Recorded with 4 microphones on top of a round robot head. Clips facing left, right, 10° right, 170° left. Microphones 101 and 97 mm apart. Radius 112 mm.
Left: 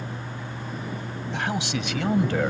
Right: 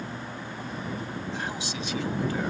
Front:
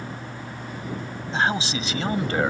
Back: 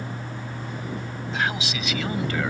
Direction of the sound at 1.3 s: 55° left.